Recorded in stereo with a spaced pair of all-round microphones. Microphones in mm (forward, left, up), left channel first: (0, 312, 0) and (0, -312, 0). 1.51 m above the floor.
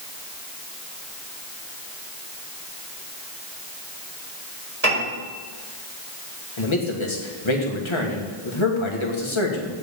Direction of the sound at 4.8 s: 70° right (ahead or behind).